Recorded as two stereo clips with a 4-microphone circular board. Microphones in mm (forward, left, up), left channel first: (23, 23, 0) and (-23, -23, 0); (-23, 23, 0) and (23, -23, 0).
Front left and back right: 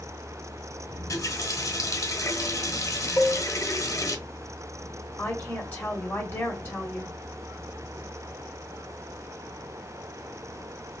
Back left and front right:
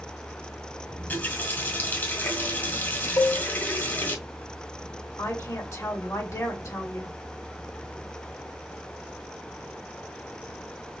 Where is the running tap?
80° left, 1.4 m.